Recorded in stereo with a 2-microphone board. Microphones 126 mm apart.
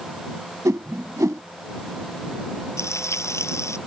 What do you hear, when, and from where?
0.7 s a whoosh: 25° right (ahead or behind)
2.8 s frying: 20° left (ahead or behind)